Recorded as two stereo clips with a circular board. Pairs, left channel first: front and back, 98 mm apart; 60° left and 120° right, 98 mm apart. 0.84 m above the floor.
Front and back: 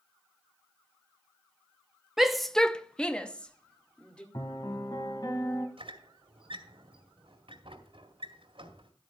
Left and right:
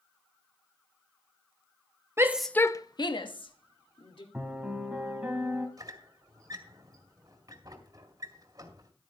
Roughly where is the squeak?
Behind.